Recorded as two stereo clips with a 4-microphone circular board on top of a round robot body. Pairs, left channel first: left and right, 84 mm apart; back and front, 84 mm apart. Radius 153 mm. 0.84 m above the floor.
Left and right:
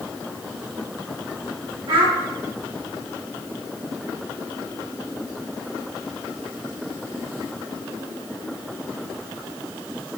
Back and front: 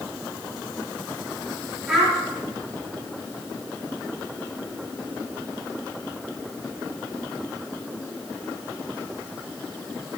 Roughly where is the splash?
I don't hear a splash.